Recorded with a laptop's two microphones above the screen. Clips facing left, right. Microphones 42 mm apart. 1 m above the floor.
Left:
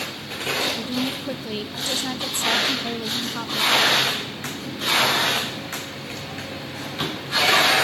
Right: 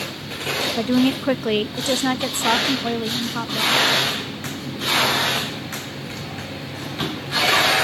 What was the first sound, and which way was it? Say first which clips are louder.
A woman speaking: right 8 dB; 60° right (ahead or behind).